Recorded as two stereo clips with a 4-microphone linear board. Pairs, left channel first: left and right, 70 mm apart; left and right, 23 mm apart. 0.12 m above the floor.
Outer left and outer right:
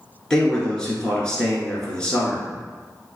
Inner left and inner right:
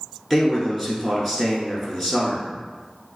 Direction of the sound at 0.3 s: 15° left (ahead or behind).